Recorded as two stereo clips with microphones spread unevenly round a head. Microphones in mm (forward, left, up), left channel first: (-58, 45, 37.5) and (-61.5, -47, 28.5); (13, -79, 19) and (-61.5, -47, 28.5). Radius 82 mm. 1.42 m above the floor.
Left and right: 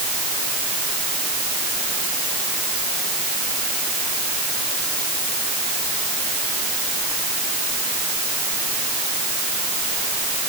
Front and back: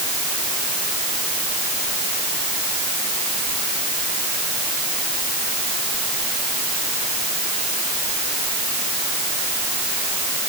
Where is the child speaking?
I don't hear a child speaking.